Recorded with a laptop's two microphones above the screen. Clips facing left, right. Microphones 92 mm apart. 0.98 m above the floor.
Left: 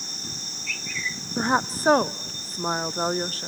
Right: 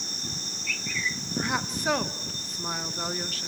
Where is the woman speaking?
40° left (ahead or behind), 0.5 m.